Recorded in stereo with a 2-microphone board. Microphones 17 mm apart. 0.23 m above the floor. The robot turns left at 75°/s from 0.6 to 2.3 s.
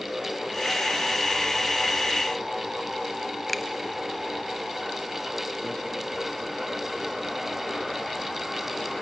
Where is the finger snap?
10° left (ahead or behind), 1.0 m.